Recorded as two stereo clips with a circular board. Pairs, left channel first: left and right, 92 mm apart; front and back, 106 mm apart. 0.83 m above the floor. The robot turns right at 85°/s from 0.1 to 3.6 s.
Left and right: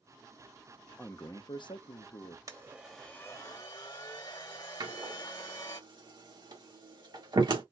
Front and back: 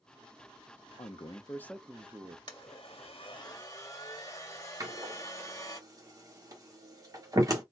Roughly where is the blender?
Ahead right.